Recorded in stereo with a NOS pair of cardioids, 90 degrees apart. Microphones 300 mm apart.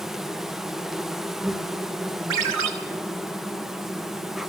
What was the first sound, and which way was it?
An insect, straight ahead.